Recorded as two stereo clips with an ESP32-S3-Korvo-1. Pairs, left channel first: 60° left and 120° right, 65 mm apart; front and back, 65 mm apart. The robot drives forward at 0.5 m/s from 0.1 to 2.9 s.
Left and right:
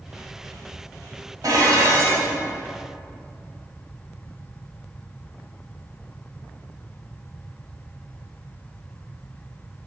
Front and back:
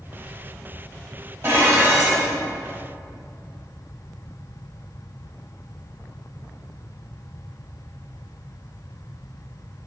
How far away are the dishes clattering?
About 1.4 m.